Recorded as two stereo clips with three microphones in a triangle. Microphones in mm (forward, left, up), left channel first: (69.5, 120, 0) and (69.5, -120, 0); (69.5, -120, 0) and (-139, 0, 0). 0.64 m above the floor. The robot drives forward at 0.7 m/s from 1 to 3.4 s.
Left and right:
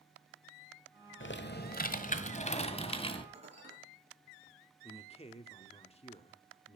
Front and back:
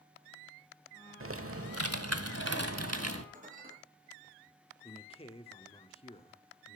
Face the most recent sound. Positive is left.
turn(degrees=30)